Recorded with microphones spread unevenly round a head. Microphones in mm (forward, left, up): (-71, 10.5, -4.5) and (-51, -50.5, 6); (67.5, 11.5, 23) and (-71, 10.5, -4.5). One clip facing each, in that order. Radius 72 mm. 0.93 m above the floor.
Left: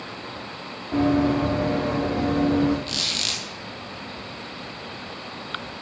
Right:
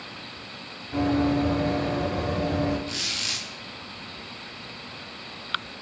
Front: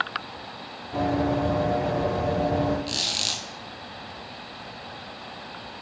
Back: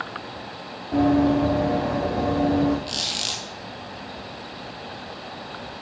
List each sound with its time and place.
0.9 s running footsteps: 140° left, 5.5 m; by 2.8 s 130° left, 6.5 m
2.9 s a squeak: 75° left, 1.6 m